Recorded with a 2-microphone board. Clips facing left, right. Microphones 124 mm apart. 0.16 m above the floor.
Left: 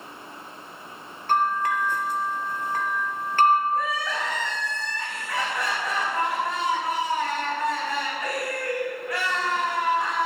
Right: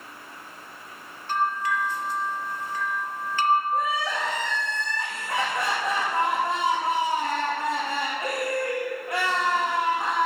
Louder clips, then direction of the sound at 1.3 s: Left 3 dB; 60° left (ahead or behind).